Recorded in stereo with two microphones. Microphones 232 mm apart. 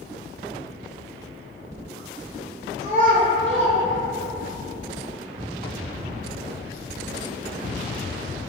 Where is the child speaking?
20° right (ahead or behind), 0.5 m; by 4.5 s 55° right (ahead or behind), 1.1 m.